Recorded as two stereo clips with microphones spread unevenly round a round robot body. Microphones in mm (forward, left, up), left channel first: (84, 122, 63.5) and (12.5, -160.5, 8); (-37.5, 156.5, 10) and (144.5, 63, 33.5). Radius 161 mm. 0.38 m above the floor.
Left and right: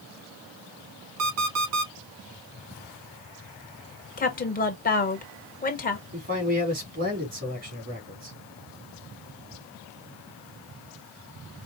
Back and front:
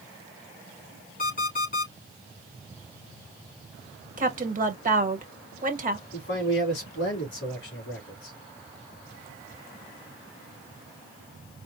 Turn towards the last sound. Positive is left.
turn(degrees=-165)